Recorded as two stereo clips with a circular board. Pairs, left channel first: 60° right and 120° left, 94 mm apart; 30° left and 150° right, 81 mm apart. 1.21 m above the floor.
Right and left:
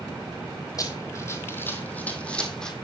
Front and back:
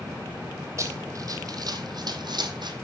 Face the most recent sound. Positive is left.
turn(degrees=-145)